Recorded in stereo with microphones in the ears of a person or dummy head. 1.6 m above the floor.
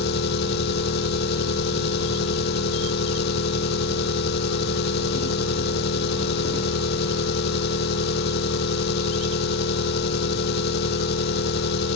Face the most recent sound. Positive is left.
turn(degrees=60)  # may be behind; listen again after turning